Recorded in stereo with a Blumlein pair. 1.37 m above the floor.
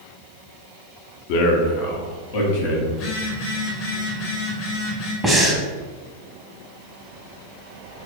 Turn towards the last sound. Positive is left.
turn(degrees=-5)